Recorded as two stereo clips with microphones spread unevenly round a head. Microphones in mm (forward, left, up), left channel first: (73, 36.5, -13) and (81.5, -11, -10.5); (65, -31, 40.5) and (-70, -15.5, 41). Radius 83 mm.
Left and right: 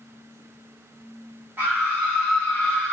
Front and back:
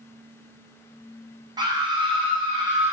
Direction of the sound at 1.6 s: 140° right.